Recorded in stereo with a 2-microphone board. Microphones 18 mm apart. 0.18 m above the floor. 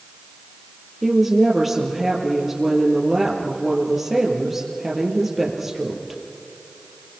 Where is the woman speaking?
15° right (ahead or behind), 4 m.